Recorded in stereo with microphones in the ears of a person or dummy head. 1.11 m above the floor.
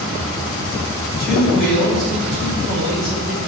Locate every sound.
1.2 s a man speaking: 5° right (ahead or behind), 6 m